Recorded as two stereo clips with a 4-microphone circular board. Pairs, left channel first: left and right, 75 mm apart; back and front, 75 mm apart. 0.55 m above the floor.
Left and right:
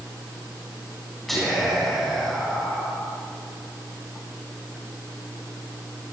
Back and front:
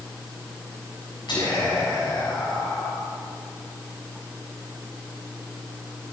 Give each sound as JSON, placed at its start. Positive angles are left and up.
{"t": 1.3, "sound": "whispering", "azimuth_deg": 180, "distance_m": 4.0}